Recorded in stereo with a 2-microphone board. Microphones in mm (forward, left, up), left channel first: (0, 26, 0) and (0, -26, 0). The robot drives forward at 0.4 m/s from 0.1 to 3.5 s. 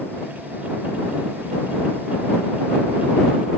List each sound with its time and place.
Only background noise.